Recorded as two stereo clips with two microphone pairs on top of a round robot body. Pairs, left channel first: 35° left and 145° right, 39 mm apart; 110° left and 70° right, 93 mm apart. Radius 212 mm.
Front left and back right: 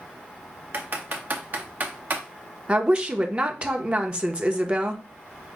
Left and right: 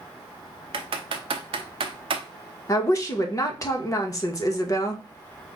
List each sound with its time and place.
0.7 s typing on a keyboard: 95° right, 0.6 m
2.7 s a woman speaking: 165° left, 1.1 m